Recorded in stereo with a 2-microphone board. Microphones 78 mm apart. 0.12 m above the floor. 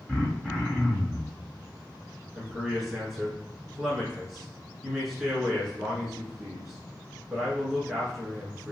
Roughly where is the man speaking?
Centre.